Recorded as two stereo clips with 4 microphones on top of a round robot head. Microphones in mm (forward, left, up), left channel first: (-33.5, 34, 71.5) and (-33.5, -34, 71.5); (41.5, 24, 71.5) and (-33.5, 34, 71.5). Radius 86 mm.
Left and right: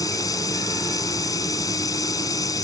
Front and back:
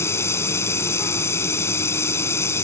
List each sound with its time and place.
0.0 s running water: 50° left